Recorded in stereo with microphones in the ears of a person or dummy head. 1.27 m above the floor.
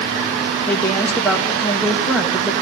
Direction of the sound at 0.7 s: 10° left (ahead or behind).